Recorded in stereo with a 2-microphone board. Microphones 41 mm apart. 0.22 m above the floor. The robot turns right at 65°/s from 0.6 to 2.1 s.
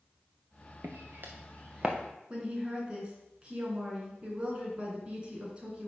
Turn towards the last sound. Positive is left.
turn(degrees=-25)  # may be behind; listen again after turning